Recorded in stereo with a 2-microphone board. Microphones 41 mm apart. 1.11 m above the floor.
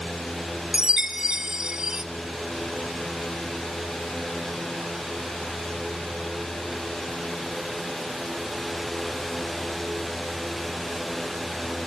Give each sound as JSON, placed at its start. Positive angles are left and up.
{"t": 0.7, "sound": "a chime", "side_deg": -15, "distance_m": 0.6}